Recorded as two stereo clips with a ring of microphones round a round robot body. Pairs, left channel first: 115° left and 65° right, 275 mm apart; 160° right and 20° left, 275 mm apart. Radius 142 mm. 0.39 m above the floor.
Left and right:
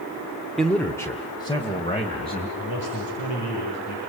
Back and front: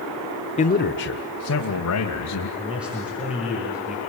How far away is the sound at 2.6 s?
About 8 m.